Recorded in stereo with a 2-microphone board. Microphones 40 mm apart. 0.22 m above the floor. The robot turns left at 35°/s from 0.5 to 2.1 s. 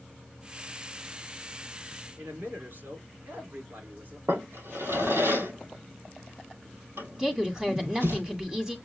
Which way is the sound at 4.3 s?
85° right.